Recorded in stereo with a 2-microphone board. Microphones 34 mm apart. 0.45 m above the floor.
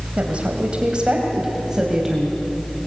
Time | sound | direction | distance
0.2 | a woman speaking | 35° right (ahead or behind) | 3 m